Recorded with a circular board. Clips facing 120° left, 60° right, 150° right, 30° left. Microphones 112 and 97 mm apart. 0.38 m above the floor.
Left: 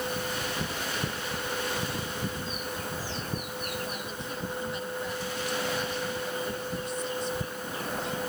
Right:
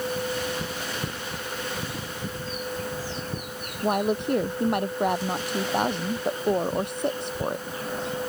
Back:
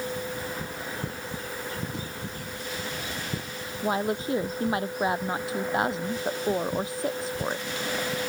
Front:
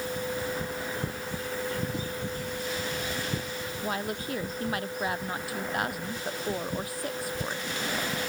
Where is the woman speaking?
85° right.